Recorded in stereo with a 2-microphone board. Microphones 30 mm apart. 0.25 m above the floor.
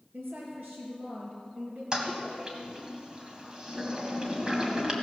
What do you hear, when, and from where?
0.1 s a woman speaking: 70° right (ahead or behind), 3.5 m
1.9 s a toilet flushing: 25° right (ahead or behind), 1.9 m